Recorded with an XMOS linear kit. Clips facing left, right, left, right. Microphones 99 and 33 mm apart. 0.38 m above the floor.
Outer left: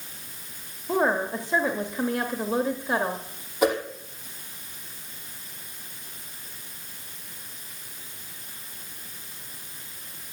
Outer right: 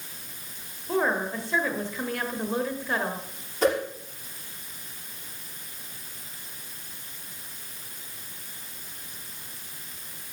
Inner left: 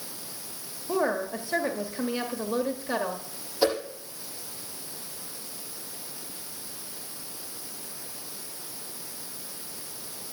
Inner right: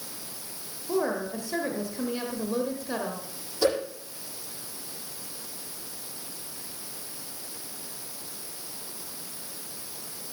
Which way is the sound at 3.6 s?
10° left (ahead or behind).